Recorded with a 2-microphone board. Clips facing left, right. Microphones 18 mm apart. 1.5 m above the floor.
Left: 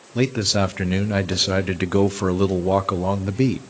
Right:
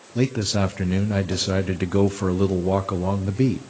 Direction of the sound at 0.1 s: 25° left (ahead or behind).